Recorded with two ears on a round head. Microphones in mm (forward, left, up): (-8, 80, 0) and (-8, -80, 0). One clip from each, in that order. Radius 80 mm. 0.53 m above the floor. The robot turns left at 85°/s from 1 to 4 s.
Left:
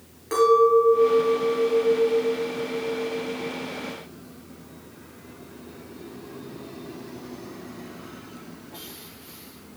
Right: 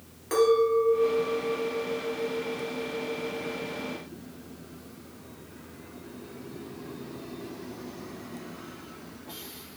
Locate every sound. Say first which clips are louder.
0.3 s a clink: left 5 dB; 170° right, 5.5 m; by 3.5 s 20° right, 5.5 m